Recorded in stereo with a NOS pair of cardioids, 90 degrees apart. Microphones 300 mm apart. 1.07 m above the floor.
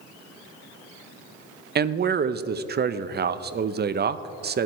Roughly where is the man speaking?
Ahead right.